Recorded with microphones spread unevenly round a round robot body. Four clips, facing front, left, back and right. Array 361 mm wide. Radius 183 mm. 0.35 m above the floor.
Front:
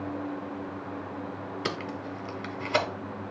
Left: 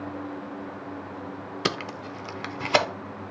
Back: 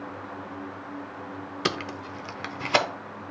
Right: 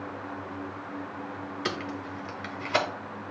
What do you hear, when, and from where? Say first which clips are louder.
1.6 s tape being pulled: left 4 dB, back 4 dB; 110° left, 0.5 m